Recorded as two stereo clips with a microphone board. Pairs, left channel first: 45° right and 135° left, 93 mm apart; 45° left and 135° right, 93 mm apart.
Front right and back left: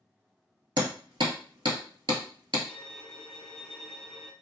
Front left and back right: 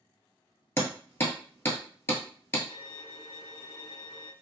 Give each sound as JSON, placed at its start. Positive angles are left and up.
{"t": 0.8, "sound": "hammering", "azimuth_deg": 105, "distance_m": 1.1}
{"t": 2.7, "sound": "a violin", "azimuth_deg": 40, "distance_m": 0.7}